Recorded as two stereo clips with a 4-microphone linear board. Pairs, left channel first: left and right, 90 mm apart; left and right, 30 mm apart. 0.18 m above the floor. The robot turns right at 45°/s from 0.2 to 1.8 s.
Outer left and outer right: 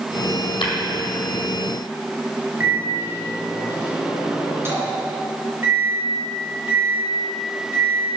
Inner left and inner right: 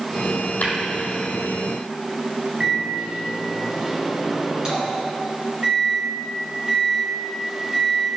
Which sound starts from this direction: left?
Tapping, at 0.6 s.